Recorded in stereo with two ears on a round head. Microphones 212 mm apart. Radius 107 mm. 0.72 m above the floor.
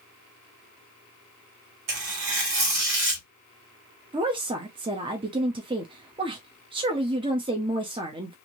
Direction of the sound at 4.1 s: 20° right (ahead or behind).